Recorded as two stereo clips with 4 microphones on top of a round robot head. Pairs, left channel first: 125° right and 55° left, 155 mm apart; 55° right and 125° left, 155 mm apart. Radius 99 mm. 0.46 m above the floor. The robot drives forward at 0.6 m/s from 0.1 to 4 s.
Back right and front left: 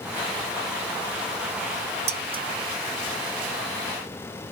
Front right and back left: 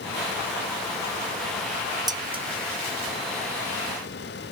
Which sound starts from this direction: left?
Dishes clattering, at 2.1 s.